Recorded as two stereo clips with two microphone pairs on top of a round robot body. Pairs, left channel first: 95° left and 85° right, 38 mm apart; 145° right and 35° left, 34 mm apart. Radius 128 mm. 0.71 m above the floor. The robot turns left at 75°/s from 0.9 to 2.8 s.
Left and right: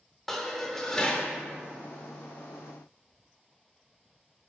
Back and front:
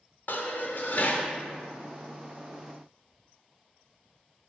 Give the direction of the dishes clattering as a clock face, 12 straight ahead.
6 o'clock.